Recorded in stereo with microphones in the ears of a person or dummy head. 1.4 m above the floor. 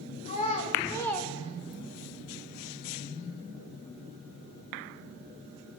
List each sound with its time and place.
0.2 s a child speaking: 35° left (ahead or behind), 1.7 m; by 2.1 s 70° right (ahead or behind), 1.0 m